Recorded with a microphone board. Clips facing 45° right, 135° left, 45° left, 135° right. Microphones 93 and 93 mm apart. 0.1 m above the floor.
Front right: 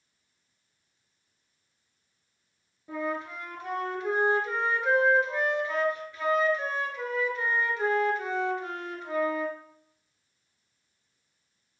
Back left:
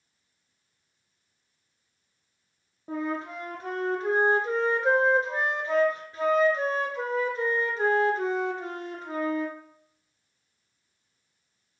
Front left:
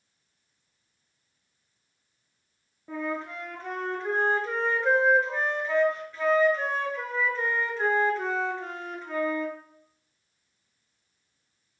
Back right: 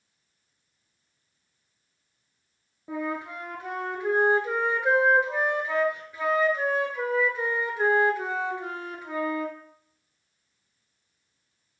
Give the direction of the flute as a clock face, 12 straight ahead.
7 o'clock.